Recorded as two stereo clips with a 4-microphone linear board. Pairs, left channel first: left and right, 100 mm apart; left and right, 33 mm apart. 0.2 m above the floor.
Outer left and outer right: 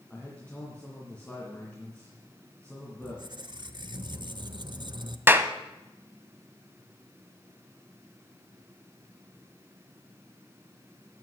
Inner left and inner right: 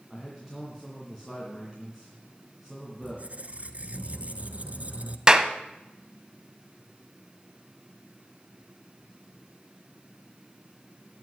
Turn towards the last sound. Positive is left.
turn(degrees=-20)  # may be behind; listen again after turning